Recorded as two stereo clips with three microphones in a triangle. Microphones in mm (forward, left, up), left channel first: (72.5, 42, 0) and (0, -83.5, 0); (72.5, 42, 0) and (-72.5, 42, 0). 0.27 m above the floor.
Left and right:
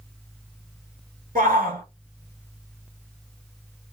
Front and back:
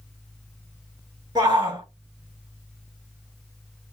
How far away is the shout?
About 3.5 m.